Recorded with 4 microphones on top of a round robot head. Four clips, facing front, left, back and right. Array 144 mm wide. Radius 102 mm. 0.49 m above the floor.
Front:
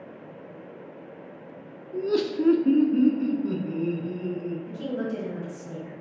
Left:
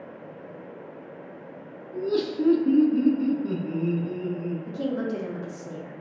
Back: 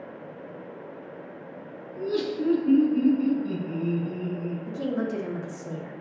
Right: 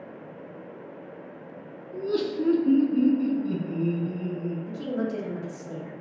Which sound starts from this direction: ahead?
Laughter, at 1.9 s.